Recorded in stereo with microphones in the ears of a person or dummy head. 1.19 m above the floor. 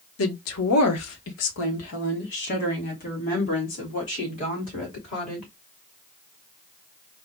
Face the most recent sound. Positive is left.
turn(degrees=30)  # may be behind; listen again after turning